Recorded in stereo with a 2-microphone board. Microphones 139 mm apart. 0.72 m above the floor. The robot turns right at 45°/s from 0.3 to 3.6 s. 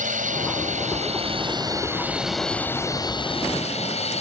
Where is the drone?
90° right; by 4.2 s 55° left.